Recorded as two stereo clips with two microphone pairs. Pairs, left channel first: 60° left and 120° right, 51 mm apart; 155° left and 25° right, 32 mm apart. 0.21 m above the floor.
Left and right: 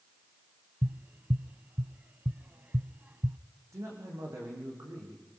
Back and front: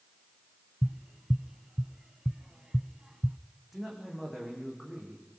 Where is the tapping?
90° right, 0.6 m.